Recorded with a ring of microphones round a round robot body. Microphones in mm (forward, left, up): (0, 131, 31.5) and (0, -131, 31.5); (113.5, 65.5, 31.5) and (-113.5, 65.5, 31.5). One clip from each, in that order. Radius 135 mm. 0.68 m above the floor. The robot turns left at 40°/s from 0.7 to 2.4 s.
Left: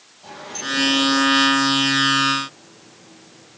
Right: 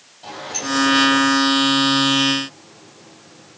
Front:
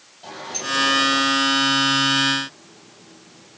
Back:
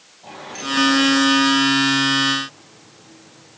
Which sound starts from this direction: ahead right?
A sliding door, at 0.2 s.